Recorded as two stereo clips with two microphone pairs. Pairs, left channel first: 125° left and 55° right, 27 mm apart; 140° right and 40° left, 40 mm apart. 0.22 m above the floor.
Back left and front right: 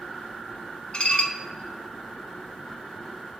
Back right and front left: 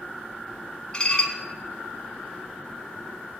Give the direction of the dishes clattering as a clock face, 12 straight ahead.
7 o'clock.